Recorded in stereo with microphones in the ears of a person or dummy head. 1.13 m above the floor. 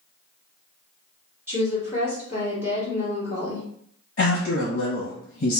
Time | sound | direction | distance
1.5 | a woman speaking | 5° right (ahead or behind) | 1.3 m
4.2 | a man speaking | 55° left (ahead or behind) | 1.0 m